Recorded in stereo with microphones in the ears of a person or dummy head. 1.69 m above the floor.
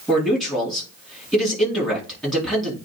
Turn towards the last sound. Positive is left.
turn(degrees=-5)  # may be behind; listen again after turning